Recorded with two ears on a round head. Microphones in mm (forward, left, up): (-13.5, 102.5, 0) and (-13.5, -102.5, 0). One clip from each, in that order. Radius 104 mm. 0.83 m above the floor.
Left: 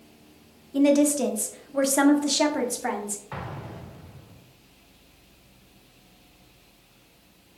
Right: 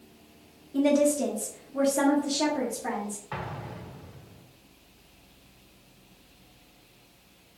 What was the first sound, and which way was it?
A woman speaking, 20° left (ahead or behind).